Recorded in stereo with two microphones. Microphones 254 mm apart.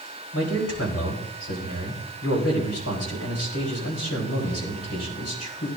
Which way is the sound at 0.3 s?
70° left (ahead or behind).